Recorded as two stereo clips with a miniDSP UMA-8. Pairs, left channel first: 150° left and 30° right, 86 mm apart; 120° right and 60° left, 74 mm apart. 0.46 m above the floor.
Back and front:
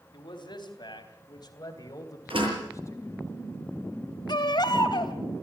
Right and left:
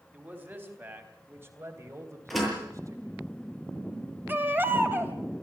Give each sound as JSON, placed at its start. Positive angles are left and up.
{"t": 0.1, "sound": "a man speaking", "azimuth_deg": 125, "distance_m": 4.0}
{"t": 2.3, "sound": "a door slam", "azimuth_deg": -30, "distance_m": 8.0}
{"t": 4.3, "sound": "a baby crying", "azimuth_deg": 120, "distance_m": 2.0}